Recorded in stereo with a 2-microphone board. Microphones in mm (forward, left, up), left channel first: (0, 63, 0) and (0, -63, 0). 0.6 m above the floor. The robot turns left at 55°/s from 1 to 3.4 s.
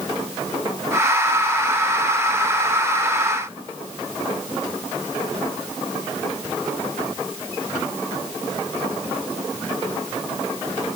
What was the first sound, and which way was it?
Only background noise.